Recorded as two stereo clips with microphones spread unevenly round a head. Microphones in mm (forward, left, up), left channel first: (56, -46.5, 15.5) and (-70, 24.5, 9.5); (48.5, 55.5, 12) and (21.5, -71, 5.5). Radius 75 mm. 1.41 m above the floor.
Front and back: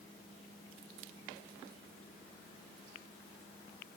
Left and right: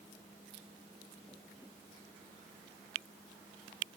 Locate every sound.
Only background noise.